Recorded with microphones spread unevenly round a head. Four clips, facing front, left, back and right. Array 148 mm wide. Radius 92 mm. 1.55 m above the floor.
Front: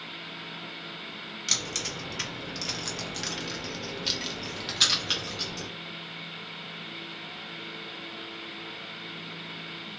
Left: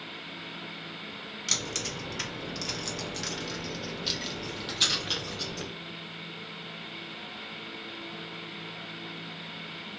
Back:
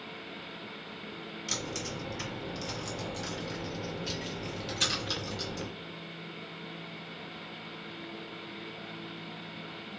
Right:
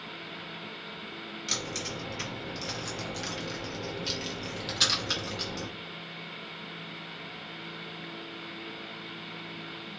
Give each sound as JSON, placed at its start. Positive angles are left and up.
{"t": 1.5, "sound": "keys jangling", "azimuth_deg": 40, "distance_m": 1.9}